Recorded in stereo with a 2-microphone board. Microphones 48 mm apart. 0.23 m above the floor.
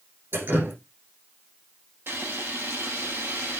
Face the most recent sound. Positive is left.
turn(degrees=-55)  # may be behind; listen again after turning